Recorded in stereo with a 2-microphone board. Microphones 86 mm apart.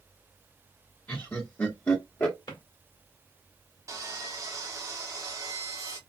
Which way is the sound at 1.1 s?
25° left (ahead or behind).